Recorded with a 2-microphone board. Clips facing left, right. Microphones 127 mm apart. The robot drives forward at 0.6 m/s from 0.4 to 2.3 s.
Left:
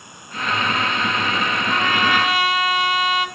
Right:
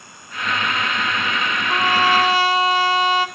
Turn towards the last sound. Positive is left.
turn(degrees=-30)  # may be behind; listen again after turning